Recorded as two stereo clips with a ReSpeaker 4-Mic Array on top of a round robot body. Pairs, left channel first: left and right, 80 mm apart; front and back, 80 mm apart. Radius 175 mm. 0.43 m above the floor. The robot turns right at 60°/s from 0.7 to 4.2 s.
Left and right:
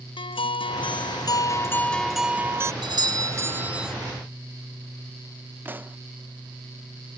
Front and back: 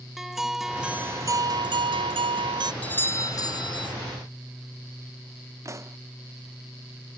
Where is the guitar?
95° left; by 2.7 s 145° right.